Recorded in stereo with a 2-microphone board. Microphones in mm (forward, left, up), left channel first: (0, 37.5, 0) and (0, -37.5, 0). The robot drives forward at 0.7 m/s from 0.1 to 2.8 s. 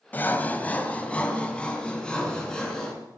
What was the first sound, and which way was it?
Sawing, 25° left (ahead or behind).